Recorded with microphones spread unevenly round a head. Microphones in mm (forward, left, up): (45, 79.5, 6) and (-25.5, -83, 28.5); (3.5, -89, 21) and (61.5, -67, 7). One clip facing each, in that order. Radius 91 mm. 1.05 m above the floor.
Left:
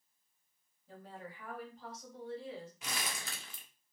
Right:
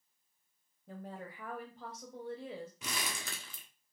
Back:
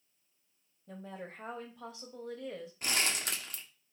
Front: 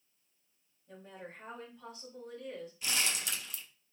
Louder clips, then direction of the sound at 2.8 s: Right 1 dB, back 2 dB; 120° right.